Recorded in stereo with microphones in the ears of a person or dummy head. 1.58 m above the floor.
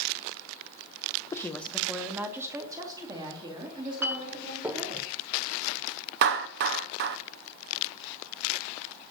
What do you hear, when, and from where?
1.3 s a woman speaking: 20° left (ahead or behind), 0.8 m; by 5.0 s 30° right (ahead or behind), 4 m
4.0 s a clink: 15° right (ahead or behind), 0.8 m
6.2 s a clap: 55° right (ahead or behind), 0.6 m